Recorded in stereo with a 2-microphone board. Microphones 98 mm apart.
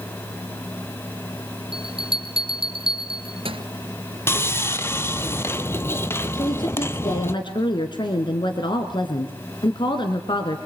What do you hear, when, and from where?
1.7 s a bell: 70° right (ahead or behind), 2.0 m
4.3 s sawing: 25° left (ahead or behind), 1.2 m
6.3 s a woman speaking: 55° left (ahead or behind), 2.5 m